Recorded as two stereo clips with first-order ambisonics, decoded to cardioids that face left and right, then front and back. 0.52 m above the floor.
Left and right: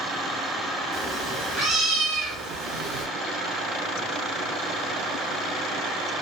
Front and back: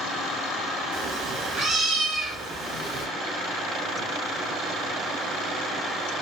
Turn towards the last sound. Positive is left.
turn(degrees=-105)